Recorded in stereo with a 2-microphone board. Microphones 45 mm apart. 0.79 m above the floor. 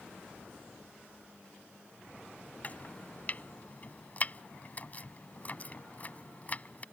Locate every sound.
2.6 s chopping: 35° left (ahead or behind)